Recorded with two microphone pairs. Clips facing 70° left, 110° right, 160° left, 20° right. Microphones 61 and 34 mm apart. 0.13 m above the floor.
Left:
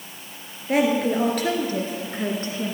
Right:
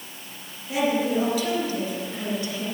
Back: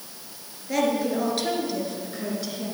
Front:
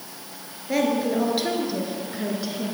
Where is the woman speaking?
60° left, 3 m; by 2.7 s 50° left, 2 m.